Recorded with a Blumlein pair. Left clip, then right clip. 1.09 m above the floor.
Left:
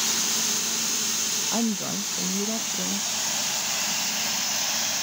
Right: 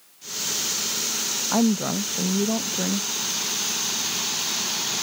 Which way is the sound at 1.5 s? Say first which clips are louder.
Right 4 dB; 15° right.